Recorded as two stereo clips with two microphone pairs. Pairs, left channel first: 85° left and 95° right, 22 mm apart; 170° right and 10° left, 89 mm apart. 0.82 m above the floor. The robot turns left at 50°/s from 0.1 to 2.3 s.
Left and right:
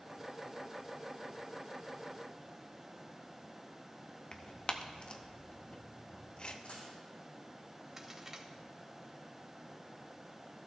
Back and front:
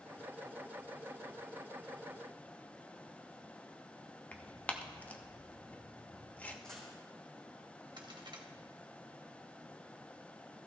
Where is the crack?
25° right, 1.4 m.